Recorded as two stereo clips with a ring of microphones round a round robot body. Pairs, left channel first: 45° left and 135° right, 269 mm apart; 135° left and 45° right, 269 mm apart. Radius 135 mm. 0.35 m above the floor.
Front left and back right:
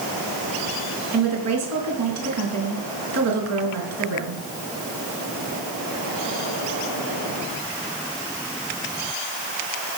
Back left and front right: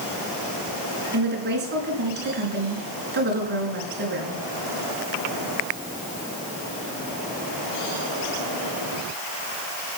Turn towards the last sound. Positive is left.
turn(degrees=-100)